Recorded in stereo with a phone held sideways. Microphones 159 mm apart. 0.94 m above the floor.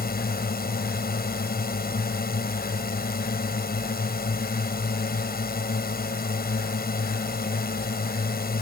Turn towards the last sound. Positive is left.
turn(degrees=80)